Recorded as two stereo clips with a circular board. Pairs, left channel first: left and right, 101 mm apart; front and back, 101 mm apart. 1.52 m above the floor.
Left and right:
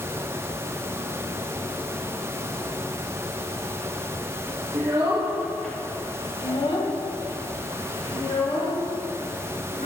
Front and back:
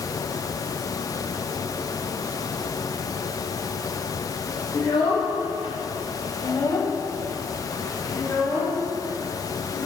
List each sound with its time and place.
4.7 s a child speaking: 50° right, 0.8 m; by 9.9 s 80° left, 3 m